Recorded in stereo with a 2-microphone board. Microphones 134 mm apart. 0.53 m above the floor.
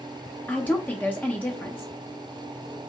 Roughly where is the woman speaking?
Centre.